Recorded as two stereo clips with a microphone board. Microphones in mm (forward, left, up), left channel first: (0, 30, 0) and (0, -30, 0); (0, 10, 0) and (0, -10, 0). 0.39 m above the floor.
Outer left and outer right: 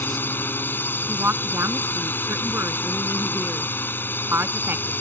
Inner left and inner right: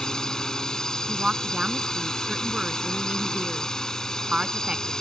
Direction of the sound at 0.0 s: 35° left (ahead or behind).